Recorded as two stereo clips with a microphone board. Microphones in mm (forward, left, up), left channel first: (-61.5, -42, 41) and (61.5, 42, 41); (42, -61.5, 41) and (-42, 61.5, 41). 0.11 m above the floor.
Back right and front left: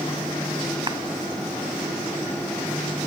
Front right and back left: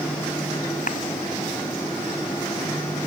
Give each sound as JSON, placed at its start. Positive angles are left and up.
{"t": 0.9, "sound": "a clap", "azimuth_deg": -25}